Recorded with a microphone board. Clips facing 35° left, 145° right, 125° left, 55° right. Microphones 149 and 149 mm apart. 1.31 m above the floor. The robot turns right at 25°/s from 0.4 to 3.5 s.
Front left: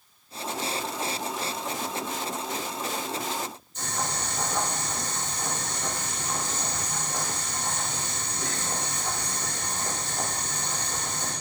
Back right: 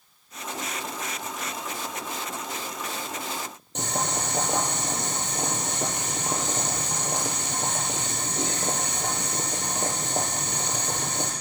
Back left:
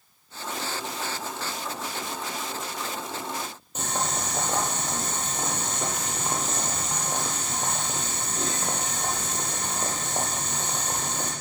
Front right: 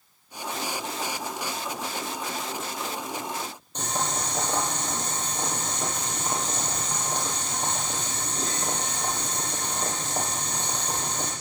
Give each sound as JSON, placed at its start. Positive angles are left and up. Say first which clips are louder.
{"t": 3.8, "sound": "boiling", "louder": "back right 4 dB, even", "azimuth_deg": -150, "distance_m": 6.0}